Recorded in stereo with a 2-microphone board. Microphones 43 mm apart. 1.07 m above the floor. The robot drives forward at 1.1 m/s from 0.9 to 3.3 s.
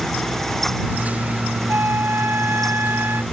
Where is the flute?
60° right (ahead or behind); by 3.2 s 50° right (ahead or behind).